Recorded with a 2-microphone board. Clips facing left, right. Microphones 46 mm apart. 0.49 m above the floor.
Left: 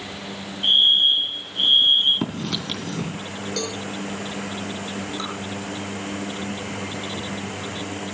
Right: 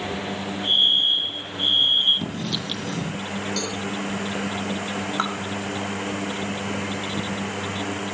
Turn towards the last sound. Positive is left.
turn(degrees=-70)  # may be behind; listen again after turning